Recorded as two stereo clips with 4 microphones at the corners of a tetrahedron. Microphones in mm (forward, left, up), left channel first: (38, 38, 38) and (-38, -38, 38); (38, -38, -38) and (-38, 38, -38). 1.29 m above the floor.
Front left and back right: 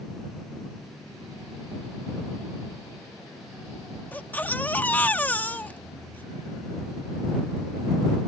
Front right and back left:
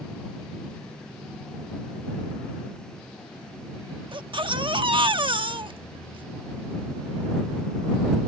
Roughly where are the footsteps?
I don't hear footsteps.